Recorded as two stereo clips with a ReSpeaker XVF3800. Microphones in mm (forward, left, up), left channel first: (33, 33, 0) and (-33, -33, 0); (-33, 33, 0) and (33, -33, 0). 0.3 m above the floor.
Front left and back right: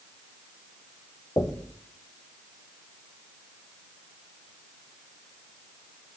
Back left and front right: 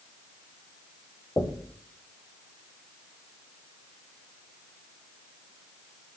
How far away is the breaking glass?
I don't hear breaking glass.